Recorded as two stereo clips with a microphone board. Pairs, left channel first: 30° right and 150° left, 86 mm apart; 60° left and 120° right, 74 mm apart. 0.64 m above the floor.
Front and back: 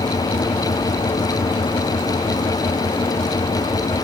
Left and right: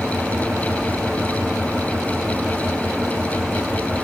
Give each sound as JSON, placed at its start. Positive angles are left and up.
{"t": 0.0, "sound": "an engine running", "azimuth_deg": -35}